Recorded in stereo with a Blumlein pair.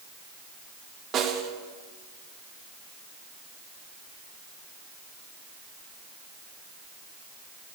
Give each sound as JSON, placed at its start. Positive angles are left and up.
{"t": 1.1, "sound": "a snare drum", "azimuth_deg": -30, "distance_m": 1.8}